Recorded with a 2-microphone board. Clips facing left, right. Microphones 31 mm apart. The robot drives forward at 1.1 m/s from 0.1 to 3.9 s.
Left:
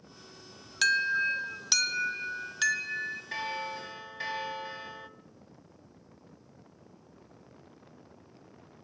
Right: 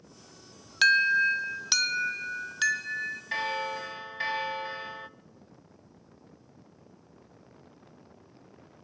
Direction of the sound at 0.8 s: 20° right (ahead or behind).